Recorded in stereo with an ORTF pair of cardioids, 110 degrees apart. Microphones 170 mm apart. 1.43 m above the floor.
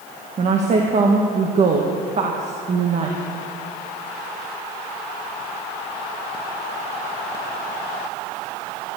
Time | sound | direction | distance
0.4 | a woman speaking | 40° right | 1.9 m